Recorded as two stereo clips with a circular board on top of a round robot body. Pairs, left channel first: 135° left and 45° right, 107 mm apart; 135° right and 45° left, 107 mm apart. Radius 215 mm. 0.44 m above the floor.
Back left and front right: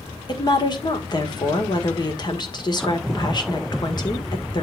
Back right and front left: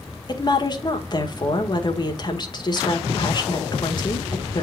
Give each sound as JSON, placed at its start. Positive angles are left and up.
{"t": 0.3, "sound": "a woman speaking", "azimuth_deg": 180, "distance_m": 1.8}